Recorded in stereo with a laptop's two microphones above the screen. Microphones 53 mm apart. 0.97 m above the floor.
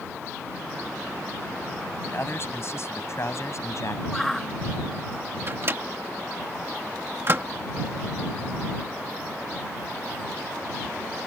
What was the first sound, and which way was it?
A man speaking, 45° left (ahead or behind).